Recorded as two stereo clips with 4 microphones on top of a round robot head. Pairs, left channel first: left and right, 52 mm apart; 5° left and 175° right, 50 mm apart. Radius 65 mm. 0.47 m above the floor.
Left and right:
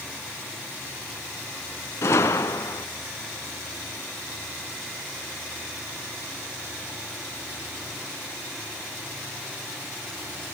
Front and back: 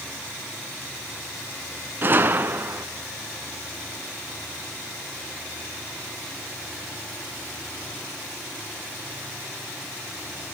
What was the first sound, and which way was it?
A gunshot, 135° left.